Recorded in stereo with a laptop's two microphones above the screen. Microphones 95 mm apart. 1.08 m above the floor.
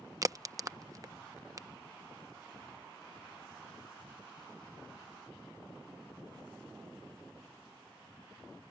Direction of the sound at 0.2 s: 35° right (ahead or behind).